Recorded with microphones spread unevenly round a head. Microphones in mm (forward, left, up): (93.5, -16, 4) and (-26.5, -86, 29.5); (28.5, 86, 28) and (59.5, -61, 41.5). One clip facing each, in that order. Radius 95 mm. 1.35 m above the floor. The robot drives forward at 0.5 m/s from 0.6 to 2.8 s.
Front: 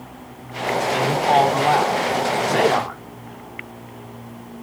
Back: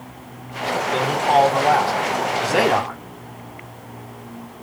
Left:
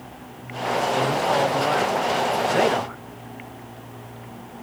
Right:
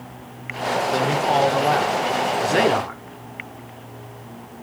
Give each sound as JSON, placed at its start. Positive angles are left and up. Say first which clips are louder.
{"t": 0.9, "sound": "a man speaking", "louder": "back 1 dB, right 3 dB", "azimuth_deg": -55, "distance_m": 4.5}